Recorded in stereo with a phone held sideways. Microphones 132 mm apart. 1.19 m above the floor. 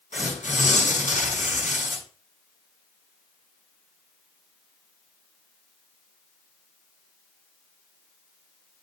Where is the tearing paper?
80° left, 5 m.